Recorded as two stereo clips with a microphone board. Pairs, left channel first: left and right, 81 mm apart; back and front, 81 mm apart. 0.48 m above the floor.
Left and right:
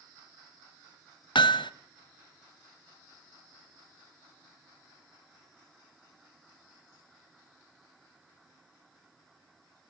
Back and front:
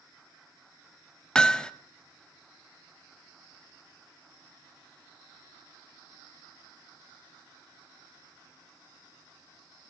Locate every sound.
1.4 s hammering: 100° left, 0.5 m